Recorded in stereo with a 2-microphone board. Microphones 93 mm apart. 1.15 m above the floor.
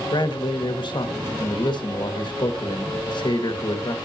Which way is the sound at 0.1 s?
55° left (ahead or behind).